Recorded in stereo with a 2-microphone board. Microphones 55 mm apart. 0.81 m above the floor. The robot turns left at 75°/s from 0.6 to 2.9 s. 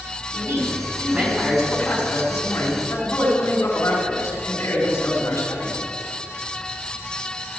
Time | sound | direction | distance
0.3 | a man speaking | 110° right | 6 m